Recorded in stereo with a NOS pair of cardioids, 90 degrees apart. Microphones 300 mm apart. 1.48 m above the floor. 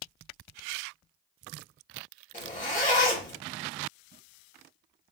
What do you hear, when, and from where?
2.3 s a zipper: 25° left, 1.9 m